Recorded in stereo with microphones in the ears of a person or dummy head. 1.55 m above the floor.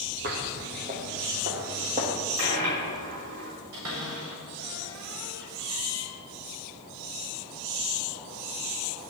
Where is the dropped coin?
60° right (ahead or behind), 3 m.